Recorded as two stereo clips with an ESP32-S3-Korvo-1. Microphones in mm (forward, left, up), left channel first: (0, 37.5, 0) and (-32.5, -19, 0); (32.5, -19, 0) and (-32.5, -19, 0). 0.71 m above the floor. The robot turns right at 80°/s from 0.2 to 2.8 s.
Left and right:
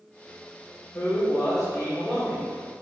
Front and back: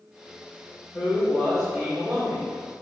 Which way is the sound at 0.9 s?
40° left.